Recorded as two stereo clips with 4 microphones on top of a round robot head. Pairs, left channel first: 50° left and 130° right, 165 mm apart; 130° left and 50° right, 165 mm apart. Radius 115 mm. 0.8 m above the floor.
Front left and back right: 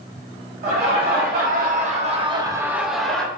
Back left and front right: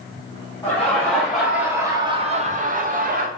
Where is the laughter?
155° right, 1.3 m; by 3.3 s 30° right, 1.0 m.